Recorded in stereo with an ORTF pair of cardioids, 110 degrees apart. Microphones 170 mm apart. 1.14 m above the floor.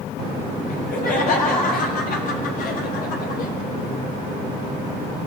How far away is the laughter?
About 7 m.